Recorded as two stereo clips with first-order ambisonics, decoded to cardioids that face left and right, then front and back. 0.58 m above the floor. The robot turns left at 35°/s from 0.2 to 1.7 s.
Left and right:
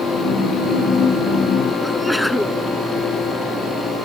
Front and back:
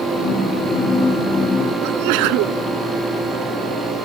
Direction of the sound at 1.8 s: Straight behind.